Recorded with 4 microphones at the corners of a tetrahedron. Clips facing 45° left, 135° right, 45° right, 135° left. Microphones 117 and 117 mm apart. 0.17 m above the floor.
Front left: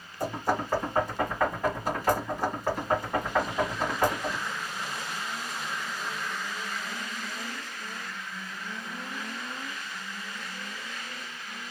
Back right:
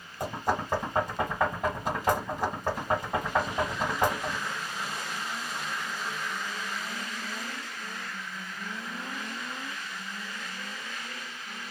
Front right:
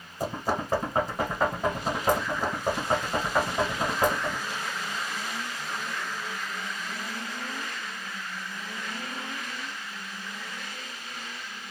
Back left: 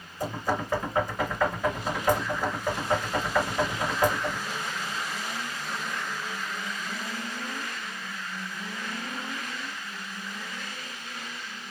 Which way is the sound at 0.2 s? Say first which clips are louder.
Front left 1 dB, even; 80° right.